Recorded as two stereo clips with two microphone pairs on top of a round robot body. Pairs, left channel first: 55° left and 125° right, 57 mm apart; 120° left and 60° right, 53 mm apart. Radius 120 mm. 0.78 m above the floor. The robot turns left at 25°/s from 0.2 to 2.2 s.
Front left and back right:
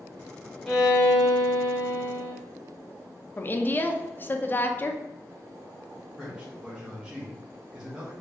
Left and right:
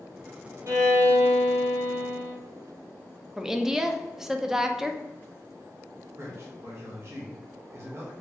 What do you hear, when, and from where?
0.7 s a violin: 40° right, 1.3 m; by 2.3 s 80° right, 1.3 m
3.4 s a woman speaking: 5° left, 0.6 m
6.2 s a man speaking: 60° right, 1.2 m